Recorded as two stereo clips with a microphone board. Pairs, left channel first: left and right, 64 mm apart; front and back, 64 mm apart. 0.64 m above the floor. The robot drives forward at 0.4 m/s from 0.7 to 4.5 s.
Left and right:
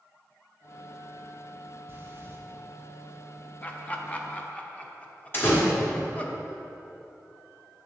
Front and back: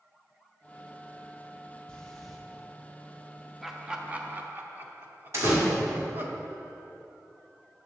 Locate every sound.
1.9 s breathing: 65° right, 0.7 m; by 2.4 s 90° right, 0.7 m
3.6 s laughter: 90° left, 0.6 m; by 6.3 s 150° left, 0.7 m
5.3 s a door slam: 140° left, 1.3 m